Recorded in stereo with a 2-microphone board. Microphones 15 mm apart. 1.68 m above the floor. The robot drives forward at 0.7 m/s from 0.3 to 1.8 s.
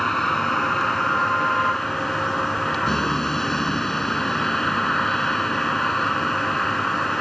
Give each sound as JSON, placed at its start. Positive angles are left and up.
{"t": 0.0, "sound": "a vehicle", "side_deg": 15}